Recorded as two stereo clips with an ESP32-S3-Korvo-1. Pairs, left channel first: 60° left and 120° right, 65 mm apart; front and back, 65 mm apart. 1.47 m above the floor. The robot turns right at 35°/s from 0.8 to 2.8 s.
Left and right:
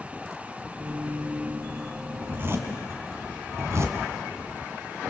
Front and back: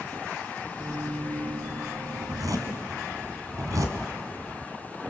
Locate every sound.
2.2 s a zipper: straight behind, 2.5 m; by 4.0 s 160° right, 2.5 m